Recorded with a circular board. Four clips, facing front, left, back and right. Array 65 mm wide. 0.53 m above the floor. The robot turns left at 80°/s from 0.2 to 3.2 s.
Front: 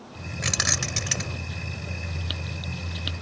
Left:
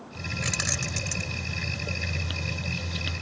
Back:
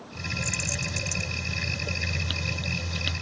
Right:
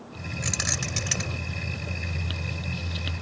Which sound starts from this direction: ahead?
Keys jangling, at 0.4 s.